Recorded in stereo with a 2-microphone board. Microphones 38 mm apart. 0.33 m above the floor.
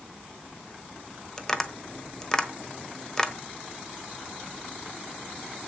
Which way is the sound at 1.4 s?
15° left (ahead or behind).